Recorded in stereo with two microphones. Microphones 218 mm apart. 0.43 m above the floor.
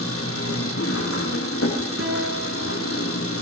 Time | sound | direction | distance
0.0 | an engine running | 80° left | 9.5 m
2.0 | a guitar | 75° right (ahead or behind) | 5.5 m